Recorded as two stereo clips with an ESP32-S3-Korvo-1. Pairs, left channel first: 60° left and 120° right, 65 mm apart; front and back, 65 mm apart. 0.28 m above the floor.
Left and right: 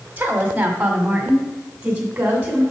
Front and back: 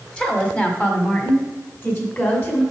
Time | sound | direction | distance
0.2 | a woman speaking | 70° right | 1.4 m